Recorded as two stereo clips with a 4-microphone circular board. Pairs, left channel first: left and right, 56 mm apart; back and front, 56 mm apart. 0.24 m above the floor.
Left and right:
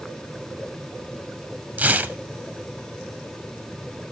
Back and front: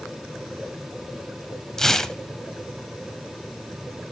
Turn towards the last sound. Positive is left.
turn(degrees=-105)